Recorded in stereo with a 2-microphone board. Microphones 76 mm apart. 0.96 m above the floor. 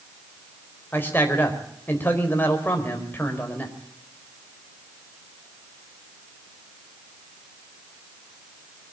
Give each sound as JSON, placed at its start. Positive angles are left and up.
{"t": 0.9, "sound": "a man speaking", "side_deg": 25, "distance_m": 4.5}